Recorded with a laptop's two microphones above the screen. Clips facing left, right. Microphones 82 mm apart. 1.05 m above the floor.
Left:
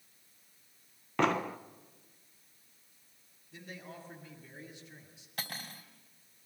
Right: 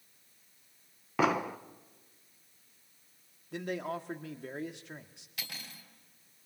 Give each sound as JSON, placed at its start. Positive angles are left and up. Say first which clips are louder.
{"t": 1.2, "sound": "an explosion", "louder": "right 1 dB", "side_deg": -5, "distance_m": 0.6}
{"t": 3.5, "sound": "a man speaking", "louder": "right 12 dB", "side_deg": -80, "distance_m": 1.7}
{"t": 5.4, "sound": "cutlery clinking", "louder": "left 4 dB", "side_deg": 45, "distance_m": 3.0}